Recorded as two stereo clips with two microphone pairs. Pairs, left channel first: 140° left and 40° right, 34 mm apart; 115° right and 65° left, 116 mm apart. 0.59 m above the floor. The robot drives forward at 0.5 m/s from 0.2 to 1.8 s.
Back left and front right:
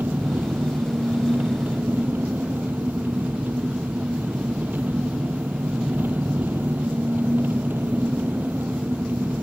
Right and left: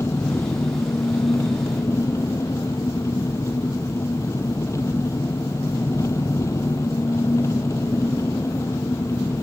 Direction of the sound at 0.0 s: 45° right.